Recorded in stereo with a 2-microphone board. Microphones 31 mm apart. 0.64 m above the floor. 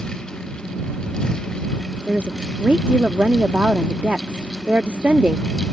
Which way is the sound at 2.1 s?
50° right (ahead or behind).